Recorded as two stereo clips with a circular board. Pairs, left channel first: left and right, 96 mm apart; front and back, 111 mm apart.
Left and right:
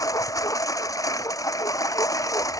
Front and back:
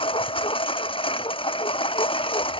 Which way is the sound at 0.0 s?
35° left.